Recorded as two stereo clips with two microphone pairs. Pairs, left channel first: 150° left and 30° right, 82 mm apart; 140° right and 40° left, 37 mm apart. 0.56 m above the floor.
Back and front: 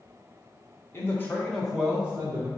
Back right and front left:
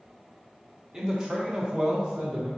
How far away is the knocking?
No knocking in this recording.